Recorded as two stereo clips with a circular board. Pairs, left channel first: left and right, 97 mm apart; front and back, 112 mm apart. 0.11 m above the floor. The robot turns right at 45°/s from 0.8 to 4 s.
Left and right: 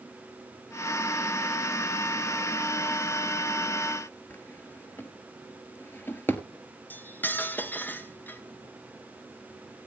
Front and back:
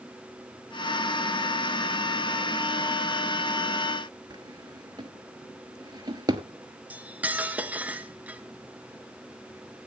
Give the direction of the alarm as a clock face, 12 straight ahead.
No alarm in this recording.